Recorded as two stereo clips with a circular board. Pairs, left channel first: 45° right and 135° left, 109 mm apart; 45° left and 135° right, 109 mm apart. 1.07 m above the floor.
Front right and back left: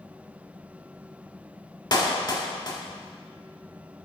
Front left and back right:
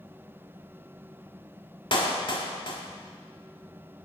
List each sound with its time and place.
1.9 s a clap: 5° left, 1.7 m